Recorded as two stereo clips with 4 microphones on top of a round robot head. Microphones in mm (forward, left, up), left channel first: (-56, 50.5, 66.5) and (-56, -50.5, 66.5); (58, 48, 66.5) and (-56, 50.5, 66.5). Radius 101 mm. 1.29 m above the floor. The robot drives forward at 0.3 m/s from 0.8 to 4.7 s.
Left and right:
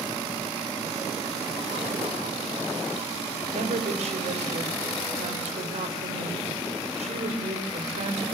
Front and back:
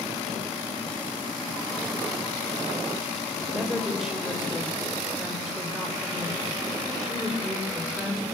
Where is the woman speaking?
90° right, 6 m; by 8.2 s 95° right, 6 m.